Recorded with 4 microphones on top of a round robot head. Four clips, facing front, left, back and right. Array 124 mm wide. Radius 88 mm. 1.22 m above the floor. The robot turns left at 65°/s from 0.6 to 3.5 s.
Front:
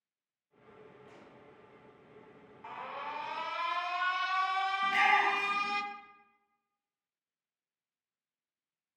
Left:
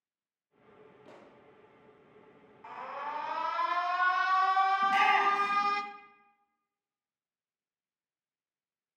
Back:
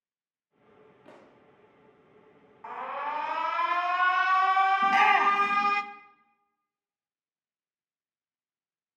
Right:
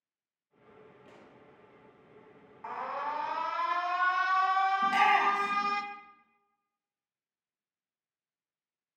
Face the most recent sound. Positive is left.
turn(degrees=-165)